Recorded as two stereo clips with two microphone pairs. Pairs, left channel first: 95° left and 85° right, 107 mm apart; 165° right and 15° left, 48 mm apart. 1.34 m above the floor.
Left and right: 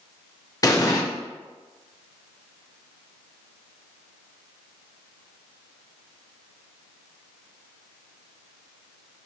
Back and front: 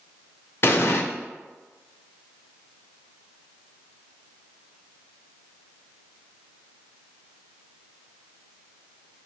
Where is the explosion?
155° left, 0.6 m.